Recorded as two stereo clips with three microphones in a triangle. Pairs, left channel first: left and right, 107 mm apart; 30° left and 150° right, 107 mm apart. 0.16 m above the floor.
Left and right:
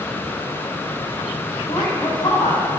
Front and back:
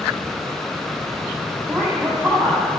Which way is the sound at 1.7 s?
140° left.